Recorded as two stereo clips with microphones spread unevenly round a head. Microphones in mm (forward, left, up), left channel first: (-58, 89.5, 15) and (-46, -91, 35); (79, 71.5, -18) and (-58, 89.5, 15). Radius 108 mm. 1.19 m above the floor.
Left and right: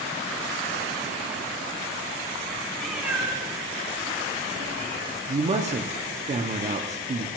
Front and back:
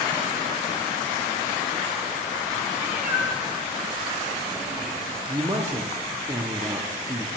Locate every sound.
2.8 s a cat meowing: 170° right, 0.9 m; by 5.2 s 110° right, 1.7 m
5.3 s a man speaking: 115° right, 0.5 m